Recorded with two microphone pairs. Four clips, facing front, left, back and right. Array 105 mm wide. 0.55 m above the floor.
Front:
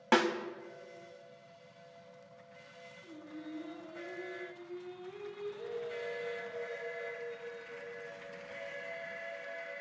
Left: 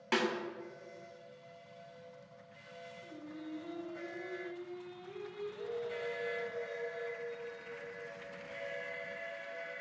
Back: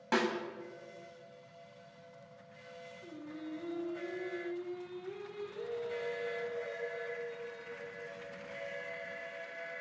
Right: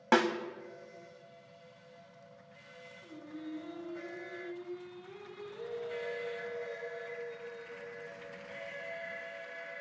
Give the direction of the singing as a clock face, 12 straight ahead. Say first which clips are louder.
Right 3 dB, back 1 dB; 6 o'clock.